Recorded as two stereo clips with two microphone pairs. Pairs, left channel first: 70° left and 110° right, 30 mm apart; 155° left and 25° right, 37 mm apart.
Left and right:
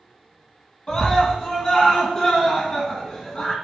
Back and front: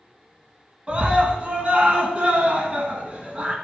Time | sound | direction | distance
0.9 | a scream | 20° left | 2 m